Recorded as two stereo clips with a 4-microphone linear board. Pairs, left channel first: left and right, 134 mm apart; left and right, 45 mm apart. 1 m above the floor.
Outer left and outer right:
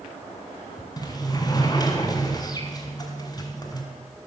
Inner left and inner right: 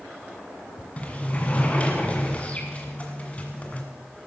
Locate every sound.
1.0 s a sliding door: 30° left (ahead or behind), 1.8 m